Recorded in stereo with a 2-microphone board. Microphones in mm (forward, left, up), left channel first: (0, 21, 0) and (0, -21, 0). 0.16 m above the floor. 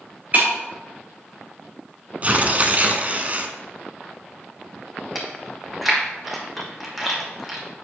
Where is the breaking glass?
40° right (ahead or behind), 2.5 m.